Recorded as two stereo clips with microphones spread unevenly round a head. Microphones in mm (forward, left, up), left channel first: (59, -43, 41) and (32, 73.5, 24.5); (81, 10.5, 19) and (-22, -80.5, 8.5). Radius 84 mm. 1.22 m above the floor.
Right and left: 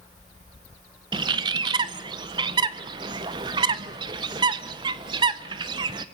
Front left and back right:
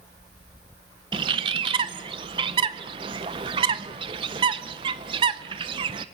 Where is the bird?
160° left, 0.6 m.